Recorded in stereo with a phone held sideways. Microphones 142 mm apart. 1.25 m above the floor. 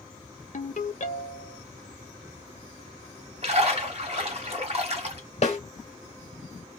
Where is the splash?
45° right (ahead or behind), 1.9 m.